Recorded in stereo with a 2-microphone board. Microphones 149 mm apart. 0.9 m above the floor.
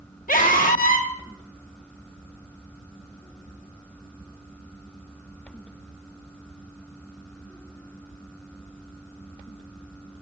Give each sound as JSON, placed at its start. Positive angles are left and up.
{"t": 0.3, "sound": "a scream", "side_deg": 70, "distance_m": 1.9}